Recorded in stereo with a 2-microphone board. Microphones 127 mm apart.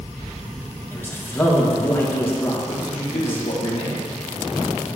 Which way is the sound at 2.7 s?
55° left (ahead or behind).